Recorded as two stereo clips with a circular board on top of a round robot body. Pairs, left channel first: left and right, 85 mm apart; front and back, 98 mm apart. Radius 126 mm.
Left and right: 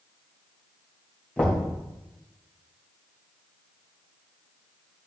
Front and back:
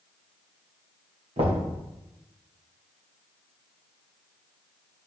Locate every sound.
1.4 s knocking: 165° left, 2.5 m